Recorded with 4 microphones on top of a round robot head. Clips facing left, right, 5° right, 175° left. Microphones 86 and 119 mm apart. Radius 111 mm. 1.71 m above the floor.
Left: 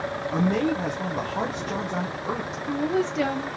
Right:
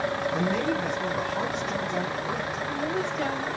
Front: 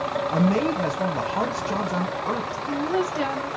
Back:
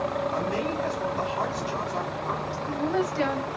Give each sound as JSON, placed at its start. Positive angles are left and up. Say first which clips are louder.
{"t": 0.3, "sound": "a man speaking", "louder": "left 6 dB, front 6 dB", "azimuth_deg": 25, "distance_m": 1.0}
{"t": 2.5, "sound": "a woman speaking", "louder": "left 4 dB, front 1 dB", "azimuth_deg": 75, "distance_m": 1.6}